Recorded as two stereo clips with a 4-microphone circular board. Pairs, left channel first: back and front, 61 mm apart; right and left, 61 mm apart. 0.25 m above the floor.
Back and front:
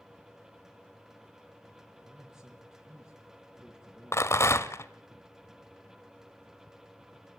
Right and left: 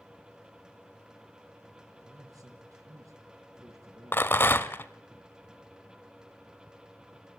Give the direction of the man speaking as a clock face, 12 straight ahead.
9 o'clock.